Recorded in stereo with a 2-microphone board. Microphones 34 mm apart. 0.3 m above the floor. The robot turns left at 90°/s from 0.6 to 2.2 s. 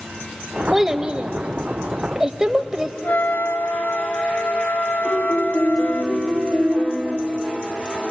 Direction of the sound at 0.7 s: 10° right (ahead or behind).